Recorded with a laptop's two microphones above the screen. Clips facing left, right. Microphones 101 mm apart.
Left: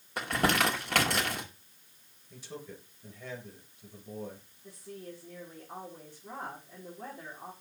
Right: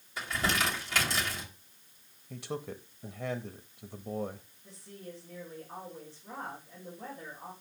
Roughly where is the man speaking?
Right.